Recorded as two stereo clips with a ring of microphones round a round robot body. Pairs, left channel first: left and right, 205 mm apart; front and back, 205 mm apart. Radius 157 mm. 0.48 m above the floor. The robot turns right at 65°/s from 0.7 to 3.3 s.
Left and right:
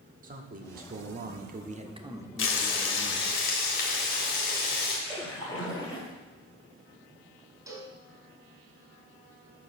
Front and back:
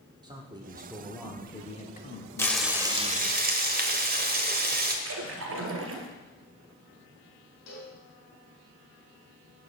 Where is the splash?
170° left, 1.5 m.